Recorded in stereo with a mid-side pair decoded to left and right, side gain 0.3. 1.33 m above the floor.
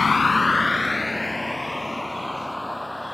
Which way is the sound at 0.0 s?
45° left.